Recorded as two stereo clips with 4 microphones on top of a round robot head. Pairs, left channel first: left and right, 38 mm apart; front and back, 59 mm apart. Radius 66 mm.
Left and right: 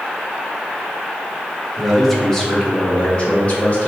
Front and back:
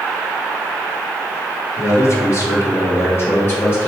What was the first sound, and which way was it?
A man speaking, straight ahead.